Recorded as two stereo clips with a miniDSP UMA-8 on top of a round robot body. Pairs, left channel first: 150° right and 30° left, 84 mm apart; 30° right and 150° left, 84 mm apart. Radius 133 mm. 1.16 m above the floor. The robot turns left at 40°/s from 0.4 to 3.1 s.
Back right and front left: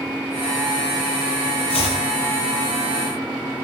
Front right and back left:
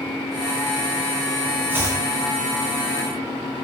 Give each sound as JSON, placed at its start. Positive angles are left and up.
{"t": 1.7, "sound": "chopping", "azimuth_deg": -140, "distance_m": 1.0}